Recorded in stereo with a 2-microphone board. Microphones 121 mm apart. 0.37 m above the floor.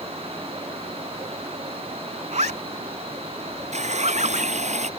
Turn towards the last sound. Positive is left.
turn(degrees=-70)  # may be behind; listen again after turning